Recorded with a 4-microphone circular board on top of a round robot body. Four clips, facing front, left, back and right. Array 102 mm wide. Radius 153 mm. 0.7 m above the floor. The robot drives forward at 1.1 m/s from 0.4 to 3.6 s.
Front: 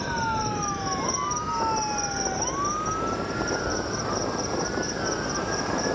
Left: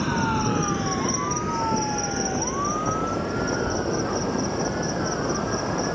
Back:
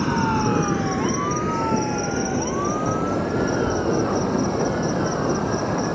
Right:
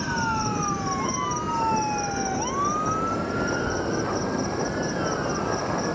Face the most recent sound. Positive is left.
turn(degrees=175)